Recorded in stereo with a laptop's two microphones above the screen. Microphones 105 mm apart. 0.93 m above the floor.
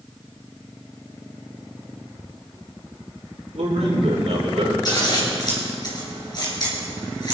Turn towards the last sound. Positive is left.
turn(degrees=40)  # may be behind; listen again after turning